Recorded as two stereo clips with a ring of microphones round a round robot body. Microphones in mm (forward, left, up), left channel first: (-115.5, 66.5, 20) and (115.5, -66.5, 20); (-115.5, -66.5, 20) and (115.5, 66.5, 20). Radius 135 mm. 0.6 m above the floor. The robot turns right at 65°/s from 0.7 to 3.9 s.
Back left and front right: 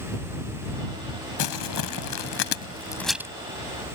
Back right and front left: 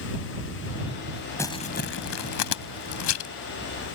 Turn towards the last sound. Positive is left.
turn(degrees=-70)